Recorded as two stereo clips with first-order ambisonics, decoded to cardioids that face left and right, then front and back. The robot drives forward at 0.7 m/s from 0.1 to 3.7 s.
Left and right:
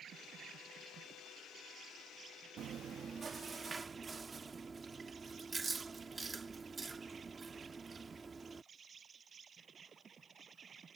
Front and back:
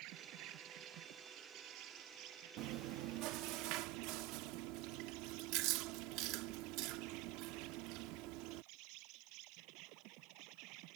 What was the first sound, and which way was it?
An insect, 150° right.